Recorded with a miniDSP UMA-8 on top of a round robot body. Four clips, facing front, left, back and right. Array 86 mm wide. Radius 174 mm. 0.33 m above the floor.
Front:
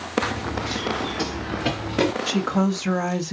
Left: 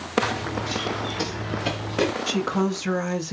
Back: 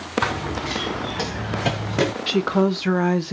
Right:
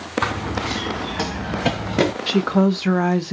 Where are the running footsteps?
135° right, 1.9 m; by 2.1 s 105° right, 1.2 m.